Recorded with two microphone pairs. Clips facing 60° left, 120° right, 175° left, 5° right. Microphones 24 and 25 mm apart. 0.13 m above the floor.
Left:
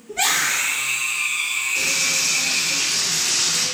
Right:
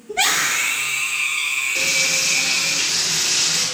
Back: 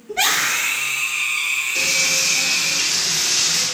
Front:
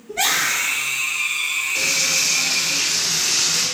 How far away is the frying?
About 1.7 m.